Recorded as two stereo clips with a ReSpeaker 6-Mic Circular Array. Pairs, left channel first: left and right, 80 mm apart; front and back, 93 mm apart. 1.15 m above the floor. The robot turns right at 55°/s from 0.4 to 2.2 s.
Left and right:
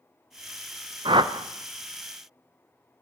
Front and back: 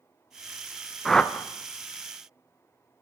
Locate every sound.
1.1 s a whoosh: 90° right, 0.5 m; by 1.5 s 65° right, 0.5 m